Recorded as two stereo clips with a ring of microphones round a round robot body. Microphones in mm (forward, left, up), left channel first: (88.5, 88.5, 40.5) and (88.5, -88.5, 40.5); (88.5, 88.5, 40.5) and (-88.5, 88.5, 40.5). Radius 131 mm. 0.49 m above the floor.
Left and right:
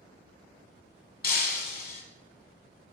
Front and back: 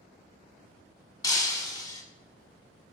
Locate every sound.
1.2 s breaking glass: 70° left, 1.1 m